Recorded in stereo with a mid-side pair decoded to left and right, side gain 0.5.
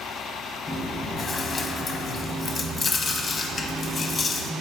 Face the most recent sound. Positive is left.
turn(degrees=25)